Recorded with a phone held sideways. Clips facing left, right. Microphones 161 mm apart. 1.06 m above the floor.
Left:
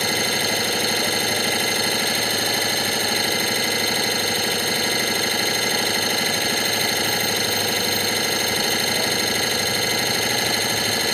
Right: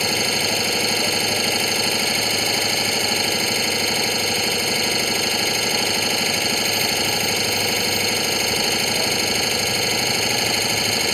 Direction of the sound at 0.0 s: 5° right (ahead or behind).